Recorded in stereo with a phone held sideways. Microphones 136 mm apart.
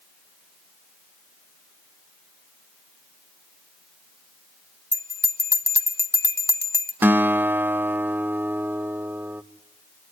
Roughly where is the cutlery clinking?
I don't hear cutlery clinking.